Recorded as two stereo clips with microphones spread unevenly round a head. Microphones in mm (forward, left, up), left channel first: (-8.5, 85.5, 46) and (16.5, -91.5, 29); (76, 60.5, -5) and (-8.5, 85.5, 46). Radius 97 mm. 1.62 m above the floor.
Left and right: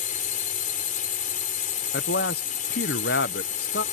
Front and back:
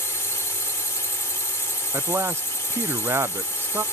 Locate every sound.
0.0 s a drone: 50° left
1.9 s a man speaking: 125° left